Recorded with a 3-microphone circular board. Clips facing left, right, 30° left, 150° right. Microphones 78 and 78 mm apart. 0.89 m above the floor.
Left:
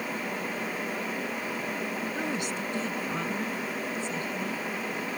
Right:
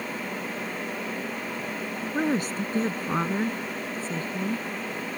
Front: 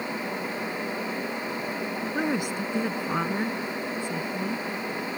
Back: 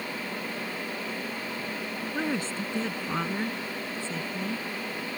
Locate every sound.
2.1 s a woman speaking: 45° right